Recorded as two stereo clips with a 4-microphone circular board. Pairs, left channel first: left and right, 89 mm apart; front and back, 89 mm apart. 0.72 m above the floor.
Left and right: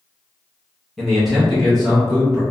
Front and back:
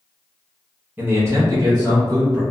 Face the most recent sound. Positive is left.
turn(degrees=180)